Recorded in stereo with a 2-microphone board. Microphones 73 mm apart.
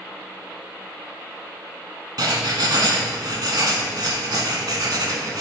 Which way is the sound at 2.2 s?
70° right (ahead or behind).